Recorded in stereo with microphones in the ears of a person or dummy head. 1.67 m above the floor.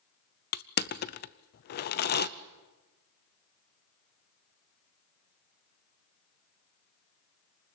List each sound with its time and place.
0.5 s crushing: 55° left (ahead or behind), 0.8 m